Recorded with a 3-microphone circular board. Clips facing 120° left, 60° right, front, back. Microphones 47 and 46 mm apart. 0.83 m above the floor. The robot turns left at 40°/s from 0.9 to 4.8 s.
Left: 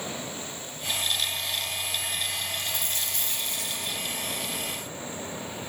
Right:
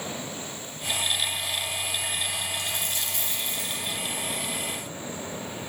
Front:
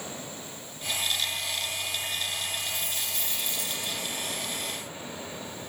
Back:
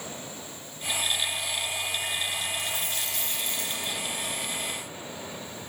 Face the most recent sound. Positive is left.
turn(degrees=90)